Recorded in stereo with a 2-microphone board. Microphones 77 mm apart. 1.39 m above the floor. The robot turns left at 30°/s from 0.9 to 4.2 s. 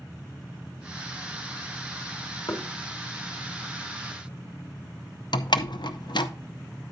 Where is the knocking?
75° left (ahead or behind), 1.5 m; by 2.6 s 70° left (ahead or behind), 1.5 m.